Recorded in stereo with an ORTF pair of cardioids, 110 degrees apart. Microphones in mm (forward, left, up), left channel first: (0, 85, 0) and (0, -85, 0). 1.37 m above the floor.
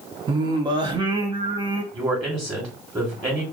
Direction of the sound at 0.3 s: 25° right.